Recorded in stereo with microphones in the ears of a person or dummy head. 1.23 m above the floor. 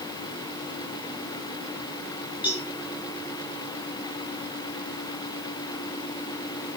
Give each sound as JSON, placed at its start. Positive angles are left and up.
{"t": 2.4, "sound": "a cowbell", "side_deg": -5, "distance_m": 3.5}